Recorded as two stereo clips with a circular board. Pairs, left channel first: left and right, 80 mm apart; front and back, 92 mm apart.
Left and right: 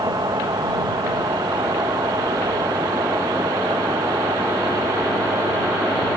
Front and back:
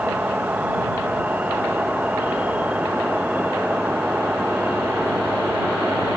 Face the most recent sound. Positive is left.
turn(degrees=-110)